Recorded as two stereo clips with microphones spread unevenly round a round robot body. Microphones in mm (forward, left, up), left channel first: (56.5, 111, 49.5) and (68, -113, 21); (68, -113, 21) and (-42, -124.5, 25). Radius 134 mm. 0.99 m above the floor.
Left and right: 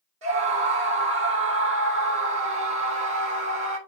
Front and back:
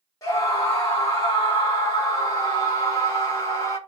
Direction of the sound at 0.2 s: 55° right.